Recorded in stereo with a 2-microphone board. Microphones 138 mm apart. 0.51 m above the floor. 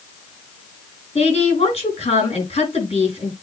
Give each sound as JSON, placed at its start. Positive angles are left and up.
{"t": 1.1, "sound": "a woman speaking", "side_deg": 50, "distance_m": 6.5}